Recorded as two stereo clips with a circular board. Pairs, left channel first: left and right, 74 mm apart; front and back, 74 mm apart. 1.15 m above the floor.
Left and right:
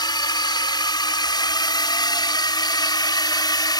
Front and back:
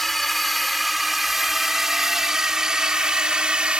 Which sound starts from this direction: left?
A drone, at 0.0 s.